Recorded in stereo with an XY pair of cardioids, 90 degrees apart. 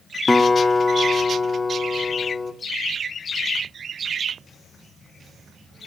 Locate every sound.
0.3 s a guitar: 20° left, 2 m